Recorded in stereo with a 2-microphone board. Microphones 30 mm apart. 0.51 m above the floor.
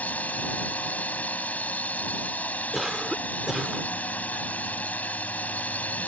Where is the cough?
10° right (ahead or behind).